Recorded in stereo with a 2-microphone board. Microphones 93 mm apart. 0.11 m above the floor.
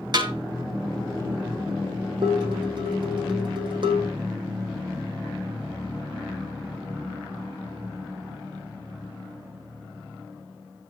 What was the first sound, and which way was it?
A snare drum, 45° right (ahead or behind).